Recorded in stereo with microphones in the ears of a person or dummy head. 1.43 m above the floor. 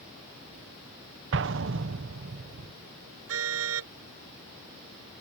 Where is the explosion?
60° right (ahead or behind).